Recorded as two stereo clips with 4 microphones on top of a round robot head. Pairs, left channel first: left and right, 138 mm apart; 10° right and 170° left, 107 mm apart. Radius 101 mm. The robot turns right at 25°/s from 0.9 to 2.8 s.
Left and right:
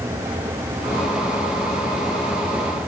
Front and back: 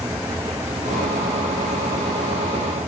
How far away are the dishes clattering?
No dishes clattering in this recording.